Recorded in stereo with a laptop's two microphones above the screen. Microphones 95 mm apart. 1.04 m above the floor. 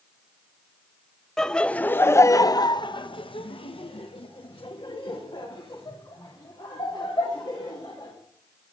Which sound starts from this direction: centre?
Laughter, at 1.4 s.